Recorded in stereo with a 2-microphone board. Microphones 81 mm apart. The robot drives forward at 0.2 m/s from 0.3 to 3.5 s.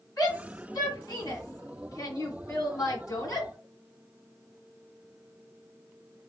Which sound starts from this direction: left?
A shout, at 0.2 s.